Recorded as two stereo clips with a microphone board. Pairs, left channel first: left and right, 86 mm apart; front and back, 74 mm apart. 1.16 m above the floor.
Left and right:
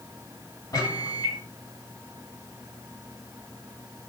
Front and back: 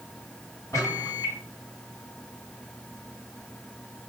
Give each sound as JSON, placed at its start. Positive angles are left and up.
{"t": 0.7, "sound": "a microwave", "azimuth_deg": 45, "distance_m": 2.5}